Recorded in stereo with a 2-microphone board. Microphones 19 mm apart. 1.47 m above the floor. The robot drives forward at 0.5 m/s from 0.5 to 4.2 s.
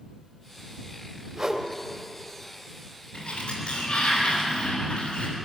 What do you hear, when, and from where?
1.4 s a whoosh: 30° right (ahead or behind), 2.5 m
3.1 s a sliding door: 55° left (ahead or behind), 6.5 m